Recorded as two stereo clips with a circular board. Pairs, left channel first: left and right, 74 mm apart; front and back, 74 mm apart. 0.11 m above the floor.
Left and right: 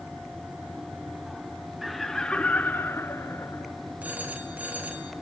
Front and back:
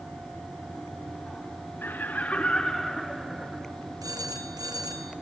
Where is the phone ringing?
160° right, 2 m.